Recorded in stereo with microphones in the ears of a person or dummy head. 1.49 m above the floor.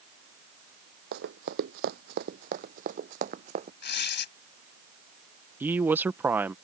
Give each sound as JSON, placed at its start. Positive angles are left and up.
{"t": 1.1, "sound": "running footsteps", "side_deg": -60}
{"t": 3.8, "sound": "tearing paper", "side_deg": 55}
{"t": 5.6, "sound": "a woman speaking", "side_deg": -10}